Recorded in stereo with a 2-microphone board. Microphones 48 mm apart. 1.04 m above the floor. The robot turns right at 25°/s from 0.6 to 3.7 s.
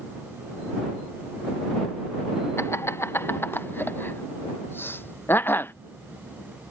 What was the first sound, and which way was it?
Laughter, 65° left (ahead or behind).